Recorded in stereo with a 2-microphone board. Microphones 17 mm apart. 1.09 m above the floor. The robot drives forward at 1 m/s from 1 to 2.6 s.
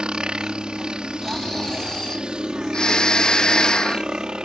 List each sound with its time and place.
0.0 s a helicopter: 60° right (ahead or behind); by 4.5 s 55° right (ahead or behind)
1.2 s snoring: 25° left (ahead or behind); by 4.1 s 55° left (ahead or behind)